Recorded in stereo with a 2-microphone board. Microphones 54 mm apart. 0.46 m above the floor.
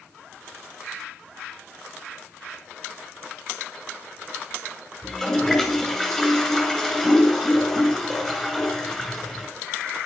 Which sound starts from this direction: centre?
A toilet flushing, at 5.0 s.